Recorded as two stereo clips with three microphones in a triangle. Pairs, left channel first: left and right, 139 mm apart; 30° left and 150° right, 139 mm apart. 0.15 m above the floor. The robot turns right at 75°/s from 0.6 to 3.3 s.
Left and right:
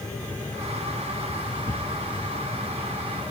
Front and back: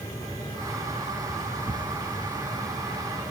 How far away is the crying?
I don't hear crying.